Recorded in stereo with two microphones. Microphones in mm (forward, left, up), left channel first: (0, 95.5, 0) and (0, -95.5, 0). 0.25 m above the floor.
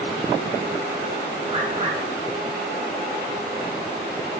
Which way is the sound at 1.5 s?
40° right (ahead or behind).